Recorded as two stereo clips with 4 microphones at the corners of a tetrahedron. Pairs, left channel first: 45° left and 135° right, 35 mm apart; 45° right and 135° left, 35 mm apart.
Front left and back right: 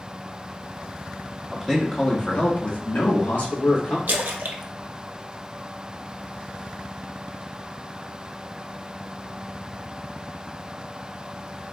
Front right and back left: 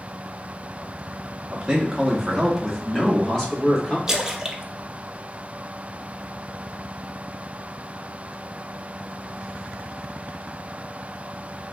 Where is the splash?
150° right, 0.6 m.